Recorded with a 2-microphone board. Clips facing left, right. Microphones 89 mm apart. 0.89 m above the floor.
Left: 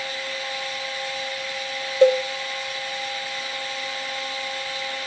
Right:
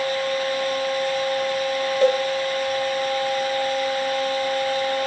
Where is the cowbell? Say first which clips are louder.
Left 3 dB; 20° left (ahead or behind), 2.5 m.